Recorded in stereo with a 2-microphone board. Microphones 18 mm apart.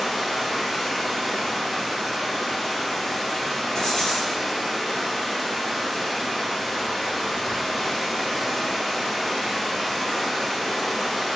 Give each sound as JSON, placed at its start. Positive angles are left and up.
{"t": 0.0, "sound": "running water", "side_deg": 5, "distance_m": 1.6}
{"t": 3.8, "sound": "writing", "side_deg": 40, "distance_m": 0.7}